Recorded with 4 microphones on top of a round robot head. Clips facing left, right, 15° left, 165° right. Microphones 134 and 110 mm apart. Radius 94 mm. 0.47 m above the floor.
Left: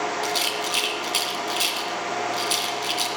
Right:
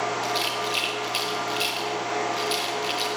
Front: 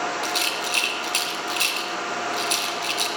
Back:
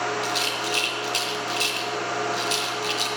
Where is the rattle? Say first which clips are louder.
Even, even; 50° left, 1.8 m.